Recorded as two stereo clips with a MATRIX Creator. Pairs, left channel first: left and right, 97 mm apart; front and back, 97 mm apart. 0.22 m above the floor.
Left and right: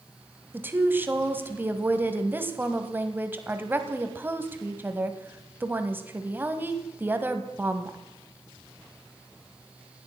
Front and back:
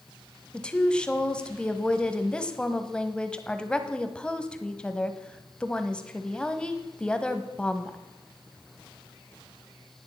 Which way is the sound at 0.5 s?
65° right.